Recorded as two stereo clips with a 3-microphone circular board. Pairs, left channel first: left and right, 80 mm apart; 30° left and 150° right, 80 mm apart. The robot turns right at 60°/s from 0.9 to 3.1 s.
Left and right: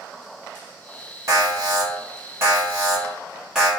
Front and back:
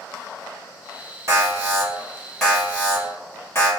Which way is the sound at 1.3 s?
120° right.